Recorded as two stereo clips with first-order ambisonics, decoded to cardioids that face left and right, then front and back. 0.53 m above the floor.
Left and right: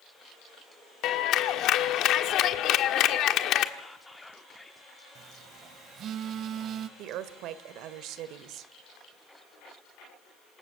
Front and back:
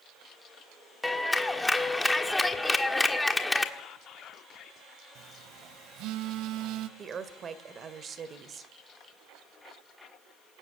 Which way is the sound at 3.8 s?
15° left.